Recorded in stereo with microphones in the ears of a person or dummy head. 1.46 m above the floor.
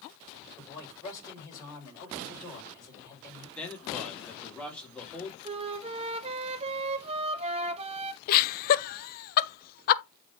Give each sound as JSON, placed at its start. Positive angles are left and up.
{"t": 0.6, "sound": "a man speaking", "side_deg": 20, "distance_m": 5.5}
{"t": 3.5, "sound": "a man speaking", "side_deg": 5, "distance_m": 2.5}
{"t": 5.5, "sound": "a flute", "side_deg": -35, "distance_m": 0.7}
{"t": 8.3, "sound": "laughter", "side_deg": 50, "distance_m": 0.7}